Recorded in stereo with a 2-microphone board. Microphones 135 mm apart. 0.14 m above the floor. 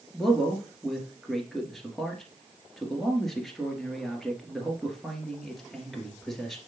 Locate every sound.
0.1 s a man speaking: centre (ahead or behind), 2 m